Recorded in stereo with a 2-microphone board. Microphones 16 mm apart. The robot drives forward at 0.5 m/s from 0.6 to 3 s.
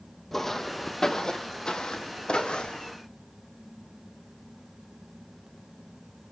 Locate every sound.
0.3 s footsteps: 10° left (ahead or behind), 0.9 m; by 2.9 s 70° left (ahead or behind), 1.1 m